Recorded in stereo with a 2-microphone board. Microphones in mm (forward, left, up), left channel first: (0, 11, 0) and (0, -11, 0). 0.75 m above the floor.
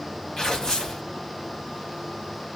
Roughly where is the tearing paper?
Left.